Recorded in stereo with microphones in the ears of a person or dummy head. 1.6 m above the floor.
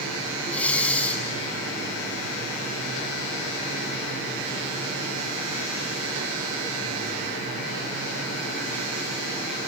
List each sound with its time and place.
0.5 s breathing: 10° left (ahead or behind), 1.8 m